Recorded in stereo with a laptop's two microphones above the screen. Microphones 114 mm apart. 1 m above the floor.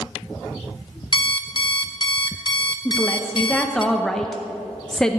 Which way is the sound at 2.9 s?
5° left (ahead or behind).